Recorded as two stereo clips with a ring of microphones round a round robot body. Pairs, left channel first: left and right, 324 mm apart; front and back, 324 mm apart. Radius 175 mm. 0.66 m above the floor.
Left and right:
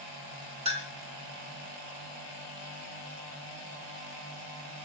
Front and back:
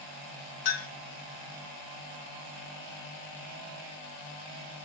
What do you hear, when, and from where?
0.7 s a clink: 20° right, 1.1 m